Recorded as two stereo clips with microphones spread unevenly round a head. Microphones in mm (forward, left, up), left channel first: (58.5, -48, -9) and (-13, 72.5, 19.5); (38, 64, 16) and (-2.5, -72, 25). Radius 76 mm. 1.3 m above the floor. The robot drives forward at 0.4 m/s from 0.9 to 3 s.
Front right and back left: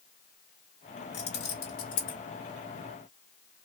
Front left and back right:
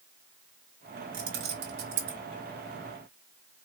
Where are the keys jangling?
90° right, 1.5 m; by 2.2 s 105° right, 1.6 m.